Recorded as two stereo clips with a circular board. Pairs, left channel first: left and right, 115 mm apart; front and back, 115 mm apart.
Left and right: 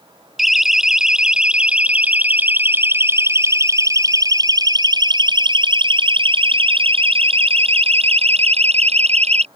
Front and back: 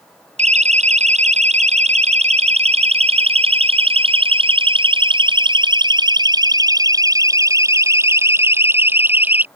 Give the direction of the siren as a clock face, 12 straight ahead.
6 o'clock.